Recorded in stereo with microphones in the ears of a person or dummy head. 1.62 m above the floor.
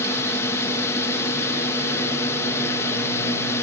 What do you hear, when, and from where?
0.0 s a drone: 15° left (ahead or behind)